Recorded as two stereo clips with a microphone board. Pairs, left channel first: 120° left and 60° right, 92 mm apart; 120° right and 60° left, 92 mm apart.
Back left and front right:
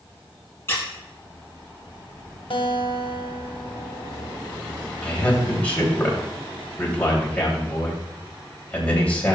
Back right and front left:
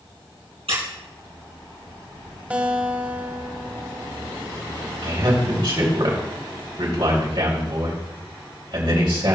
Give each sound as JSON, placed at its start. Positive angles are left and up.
{"t": 0.7, "sound": "a squeak", "azimuth_deg": 55, "distance_m": 3.5}
{"t": 2.5, "sound": "a guitar", "azimuth_deg": 130, "distance_m": 1.3}
{"t": 5.0, "sound": "a man speaking", "azimuth_deg": 45, "distance_m": 3.0}